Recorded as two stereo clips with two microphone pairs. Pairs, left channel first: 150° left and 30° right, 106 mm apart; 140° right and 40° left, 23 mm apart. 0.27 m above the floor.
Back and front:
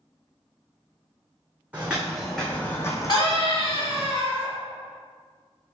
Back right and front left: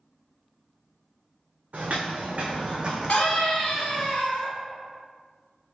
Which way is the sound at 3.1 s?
175° right.